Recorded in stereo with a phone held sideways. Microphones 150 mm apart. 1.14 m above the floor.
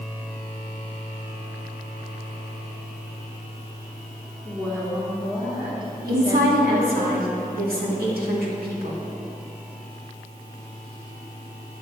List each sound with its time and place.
4.5 s a woman speaking: 30° right (ahead or behind), 2.5 m
6.1 s a woman speaking: 80° right, 2 m